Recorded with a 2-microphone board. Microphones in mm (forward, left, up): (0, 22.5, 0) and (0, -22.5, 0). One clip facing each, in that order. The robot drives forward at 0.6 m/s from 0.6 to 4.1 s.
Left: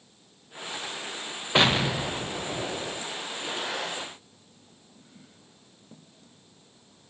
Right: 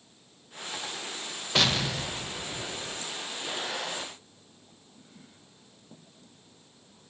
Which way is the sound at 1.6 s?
25° left (ahead or behind).